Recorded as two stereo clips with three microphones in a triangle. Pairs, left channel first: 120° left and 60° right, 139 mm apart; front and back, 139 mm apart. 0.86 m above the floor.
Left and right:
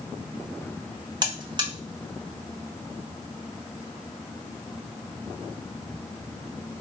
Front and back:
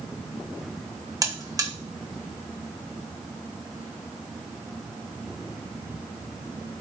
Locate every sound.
1.2 s a buzzer: 115° right, 0.7 m